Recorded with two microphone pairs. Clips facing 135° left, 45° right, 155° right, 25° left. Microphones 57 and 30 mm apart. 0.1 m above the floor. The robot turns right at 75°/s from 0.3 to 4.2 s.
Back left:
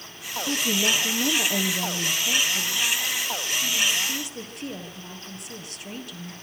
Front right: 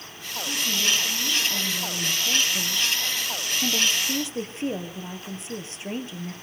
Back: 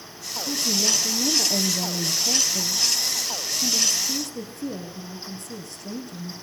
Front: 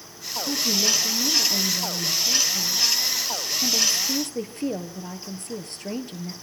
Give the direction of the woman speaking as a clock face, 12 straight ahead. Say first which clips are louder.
Back left 2 dB, front 1 dB; 9 o'clock.